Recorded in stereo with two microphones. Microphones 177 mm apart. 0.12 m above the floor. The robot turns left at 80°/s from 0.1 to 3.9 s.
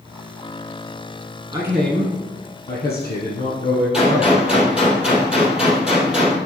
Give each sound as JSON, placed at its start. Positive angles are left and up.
{"t": 1.5, "sound": "a man speaking", "azimuth_deg": -155, "distance_m": 2.5}
{"t": 3.9, "sound": "a gunshot", "side_deg": -5, "distance_m": 2.5}